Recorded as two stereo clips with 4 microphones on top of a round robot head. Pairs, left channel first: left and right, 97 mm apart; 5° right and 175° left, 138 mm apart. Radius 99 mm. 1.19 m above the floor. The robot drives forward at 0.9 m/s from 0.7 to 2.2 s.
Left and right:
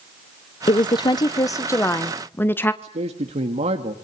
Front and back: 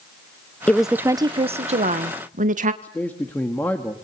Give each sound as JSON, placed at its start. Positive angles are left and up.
{"t": 0.7, "sound": "a woman speaking", "azimuth_deg": 75, "distance_m": 0.7}
{"t": 2.8, "sound": "a man speaking", "azimuth_deg": -85, "distance_m": 1.6}